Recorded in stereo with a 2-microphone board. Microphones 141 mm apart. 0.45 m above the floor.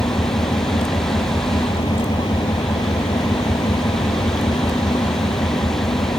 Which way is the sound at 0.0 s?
35° left (ahead or behind).